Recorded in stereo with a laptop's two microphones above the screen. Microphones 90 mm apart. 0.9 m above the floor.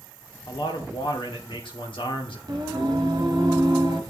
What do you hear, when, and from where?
0.5 s a man speaking: 75° left (ahead or behind), 2 m
2.5 s singing: 50° right (ahead or behind), 1.5 m